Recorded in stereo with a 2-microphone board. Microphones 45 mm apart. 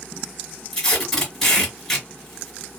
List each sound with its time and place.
0.7 s tape being pulled: 5° left (ahead or behind), 2.5 m